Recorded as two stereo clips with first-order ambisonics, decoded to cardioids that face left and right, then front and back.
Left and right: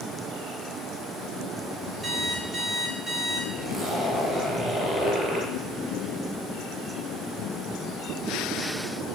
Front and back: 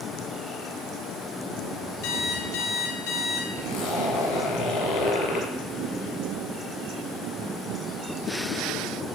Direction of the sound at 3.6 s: 20° right.